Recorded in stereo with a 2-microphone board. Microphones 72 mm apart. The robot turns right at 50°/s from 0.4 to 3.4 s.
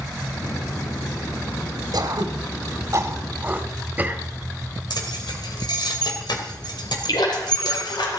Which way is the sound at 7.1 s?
80° left.